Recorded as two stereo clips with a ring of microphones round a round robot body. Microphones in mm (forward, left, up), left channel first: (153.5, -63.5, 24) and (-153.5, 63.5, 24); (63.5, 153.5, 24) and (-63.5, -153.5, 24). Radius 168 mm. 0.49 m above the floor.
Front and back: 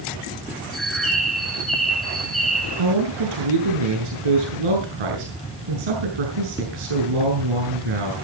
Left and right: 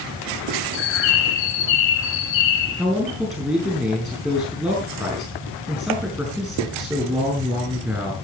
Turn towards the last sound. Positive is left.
turn(degrees=160)